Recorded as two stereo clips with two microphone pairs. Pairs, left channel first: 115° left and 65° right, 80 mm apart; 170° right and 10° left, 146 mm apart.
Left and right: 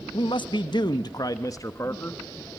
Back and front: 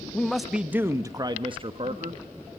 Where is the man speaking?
110° left, 0.9 m; by 2.2 s 55° left, 1.2 m.